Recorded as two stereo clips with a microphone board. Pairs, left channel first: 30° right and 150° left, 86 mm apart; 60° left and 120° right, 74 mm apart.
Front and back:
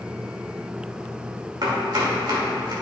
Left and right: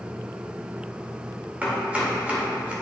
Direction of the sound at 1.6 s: 175° left.